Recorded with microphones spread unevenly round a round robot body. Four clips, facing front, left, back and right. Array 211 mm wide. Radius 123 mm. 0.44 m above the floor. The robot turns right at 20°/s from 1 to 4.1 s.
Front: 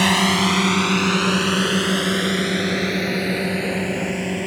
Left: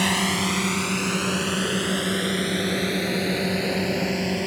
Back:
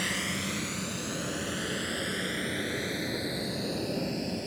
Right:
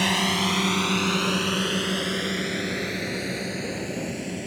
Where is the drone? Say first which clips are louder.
Left 1 dB, front 16 dB; 5° left; by 4.5 s 40° left.